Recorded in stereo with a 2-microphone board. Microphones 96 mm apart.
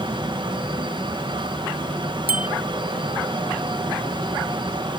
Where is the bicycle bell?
80° left.